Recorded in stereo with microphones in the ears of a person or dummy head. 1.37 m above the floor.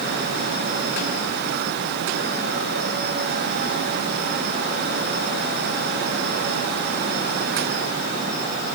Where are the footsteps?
I don't hear footsteps.